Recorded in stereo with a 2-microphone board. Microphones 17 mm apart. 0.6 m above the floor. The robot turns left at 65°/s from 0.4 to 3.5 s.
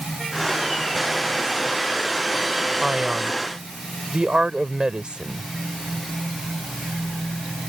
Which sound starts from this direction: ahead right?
A man speaking, at 2.8 s.